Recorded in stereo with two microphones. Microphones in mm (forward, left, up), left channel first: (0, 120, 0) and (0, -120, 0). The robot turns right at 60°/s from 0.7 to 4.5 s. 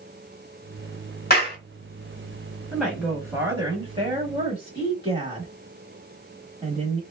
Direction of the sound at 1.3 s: 40° left (ahead or behind).